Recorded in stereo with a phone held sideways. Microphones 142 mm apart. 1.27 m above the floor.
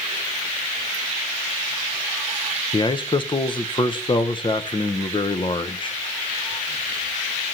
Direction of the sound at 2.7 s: 35° left (ahead or behind).